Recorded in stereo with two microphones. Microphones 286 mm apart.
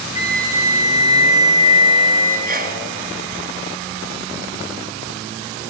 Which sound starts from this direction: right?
A sneeze, at 2.5 s.